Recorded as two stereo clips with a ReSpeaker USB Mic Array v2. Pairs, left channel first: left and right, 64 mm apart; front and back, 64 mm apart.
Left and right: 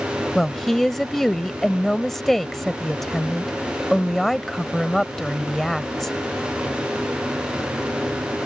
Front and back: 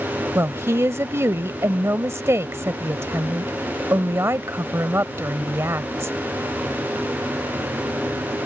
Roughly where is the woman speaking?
Behind.